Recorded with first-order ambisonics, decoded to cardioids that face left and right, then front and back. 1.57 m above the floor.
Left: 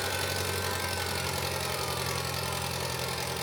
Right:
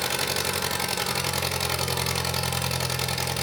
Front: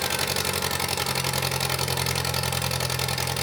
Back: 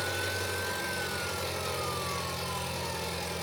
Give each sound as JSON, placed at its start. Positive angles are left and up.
{"t": 0.0, "sound": "an engine running", "azimuth_deg": -30, "distance_m": 1.3}